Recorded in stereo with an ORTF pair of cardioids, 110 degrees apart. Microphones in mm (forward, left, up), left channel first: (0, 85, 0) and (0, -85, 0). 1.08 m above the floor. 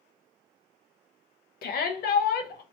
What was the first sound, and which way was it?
A shout, 60° left.